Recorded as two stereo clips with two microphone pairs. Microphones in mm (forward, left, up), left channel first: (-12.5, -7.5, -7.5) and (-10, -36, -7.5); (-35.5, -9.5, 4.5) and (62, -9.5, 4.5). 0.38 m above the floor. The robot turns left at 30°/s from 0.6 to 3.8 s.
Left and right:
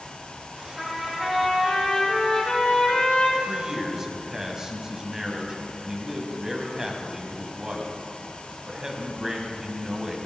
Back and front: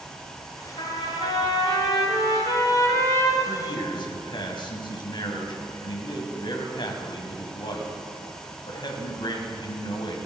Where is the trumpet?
165° right, 5.5 m; by 3.4 s 120° left, 5.5 m.